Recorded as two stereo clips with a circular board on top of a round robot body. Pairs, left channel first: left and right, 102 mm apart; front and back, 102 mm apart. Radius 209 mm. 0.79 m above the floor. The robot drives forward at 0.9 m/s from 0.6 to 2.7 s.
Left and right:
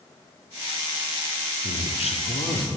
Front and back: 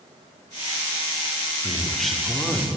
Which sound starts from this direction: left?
A man speaking, at 1.6 s.